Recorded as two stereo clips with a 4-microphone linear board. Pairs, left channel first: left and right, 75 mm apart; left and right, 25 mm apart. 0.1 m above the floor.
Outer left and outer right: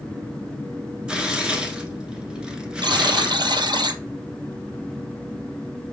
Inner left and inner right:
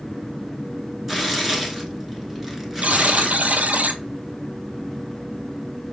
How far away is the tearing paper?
About 1.0 m.